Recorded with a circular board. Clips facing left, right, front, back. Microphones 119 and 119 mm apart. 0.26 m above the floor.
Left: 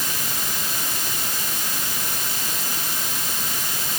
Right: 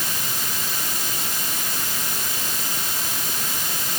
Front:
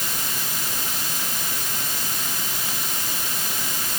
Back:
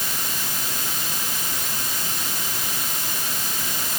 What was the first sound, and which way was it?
Only background noise.